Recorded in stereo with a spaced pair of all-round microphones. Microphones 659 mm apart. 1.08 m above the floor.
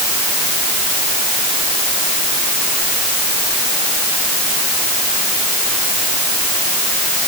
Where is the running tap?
No running tap in this recording.